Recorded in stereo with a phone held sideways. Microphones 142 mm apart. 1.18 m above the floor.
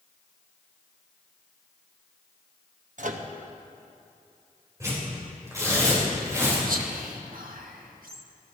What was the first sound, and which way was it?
A microwave, 65° right (ahead or behind).